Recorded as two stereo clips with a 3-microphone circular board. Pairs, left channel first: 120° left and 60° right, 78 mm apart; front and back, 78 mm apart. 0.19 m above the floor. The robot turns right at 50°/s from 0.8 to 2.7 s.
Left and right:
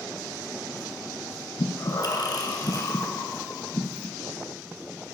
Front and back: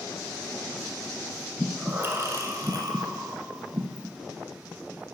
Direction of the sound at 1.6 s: 100° left.